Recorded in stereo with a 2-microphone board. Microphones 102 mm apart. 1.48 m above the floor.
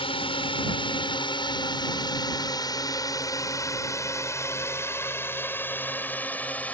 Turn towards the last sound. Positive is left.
turn(degrees=15)  # may be behind; listen again after turning